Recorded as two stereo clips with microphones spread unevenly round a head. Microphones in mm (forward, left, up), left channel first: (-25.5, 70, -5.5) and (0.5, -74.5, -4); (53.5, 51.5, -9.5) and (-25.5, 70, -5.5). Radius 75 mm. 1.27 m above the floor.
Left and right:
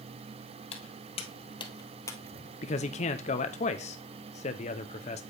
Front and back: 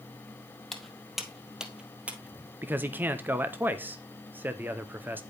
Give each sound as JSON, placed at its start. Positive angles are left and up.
{"t": 0.7, "sound": "footsteps", "azimuth_deg": 75, "distance_m": 1.7}
{"t": 2.6, "sound": "a man speaking", "azimuth_deg": 105, "distance_m": 0.6}